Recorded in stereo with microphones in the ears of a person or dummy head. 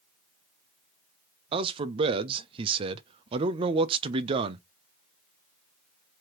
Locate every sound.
1.5 s a man speaking: 25° right (ahead or behind), 0.6 m